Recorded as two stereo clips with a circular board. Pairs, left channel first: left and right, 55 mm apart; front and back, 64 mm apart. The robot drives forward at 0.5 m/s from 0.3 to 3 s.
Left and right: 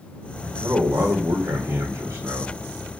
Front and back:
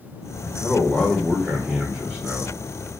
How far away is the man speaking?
About 1.3 m.